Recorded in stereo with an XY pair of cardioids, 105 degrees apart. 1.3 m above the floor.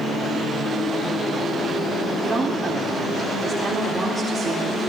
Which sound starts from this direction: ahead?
A woman speaking, at 2.2 s.